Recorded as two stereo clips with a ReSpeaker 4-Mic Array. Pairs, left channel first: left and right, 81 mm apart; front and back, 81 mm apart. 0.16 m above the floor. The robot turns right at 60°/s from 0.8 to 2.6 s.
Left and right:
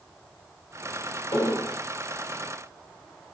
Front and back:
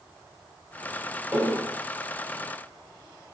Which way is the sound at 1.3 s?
115° left.